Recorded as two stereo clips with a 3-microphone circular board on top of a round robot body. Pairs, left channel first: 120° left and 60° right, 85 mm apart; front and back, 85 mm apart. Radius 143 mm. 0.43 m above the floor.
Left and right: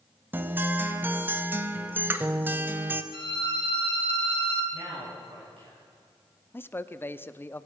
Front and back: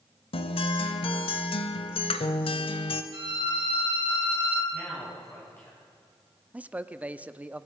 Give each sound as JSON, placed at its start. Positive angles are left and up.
{"t": 0.3, "sound": "a guitar", "azimuth_deg": 10, "distance_m": 0.7}
{"t": 3.1, "sound": "a violin", "azimuth_deg": 150, "distance_m": 4.5}
{"t": 4.7, "sound": "a man speaking", "azimuth_deg": -65, "distance_m": 6.0}
{"t": 6.5, "sound": "a man speaking", "azimuth_deg": 130, "distance_m": 0.7}